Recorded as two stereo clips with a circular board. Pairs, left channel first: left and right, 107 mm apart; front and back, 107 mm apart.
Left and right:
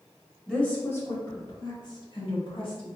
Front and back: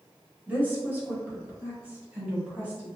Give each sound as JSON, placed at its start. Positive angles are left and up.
{"t": 0.5, "sound": "a woman speaking", "azimuth_deg": 160, "distance_m": 1.0}